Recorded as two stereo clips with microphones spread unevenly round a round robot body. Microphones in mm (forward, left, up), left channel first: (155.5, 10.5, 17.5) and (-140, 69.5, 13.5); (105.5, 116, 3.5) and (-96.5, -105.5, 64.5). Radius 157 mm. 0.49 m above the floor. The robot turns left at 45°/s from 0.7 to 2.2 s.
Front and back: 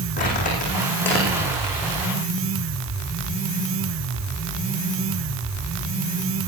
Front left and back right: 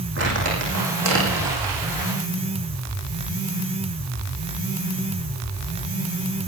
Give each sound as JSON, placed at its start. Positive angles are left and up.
{"t": 0.2, "sound": "crumpling", "azimuth_deg": -80, "distance_m": 10.0}